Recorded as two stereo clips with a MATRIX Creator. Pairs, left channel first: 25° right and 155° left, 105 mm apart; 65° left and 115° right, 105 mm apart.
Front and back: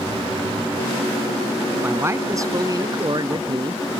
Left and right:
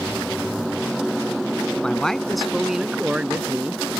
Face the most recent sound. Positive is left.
turn(degrees=175)